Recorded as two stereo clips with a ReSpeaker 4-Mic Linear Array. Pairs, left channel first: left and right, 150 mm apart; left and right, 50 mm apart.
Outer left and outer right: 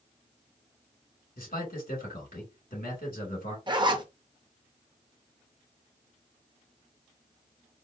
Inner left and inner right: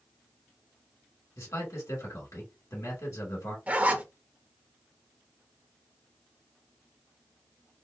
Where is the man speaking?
85° left, 2 m.